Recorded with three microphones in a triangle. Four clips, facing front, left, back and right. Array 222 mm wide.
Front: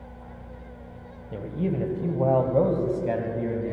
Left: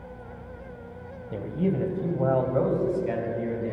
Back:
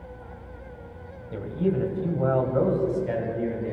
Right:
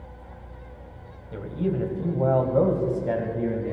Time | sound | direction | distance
1.3 | a man speaking | 70° left | 1.6 m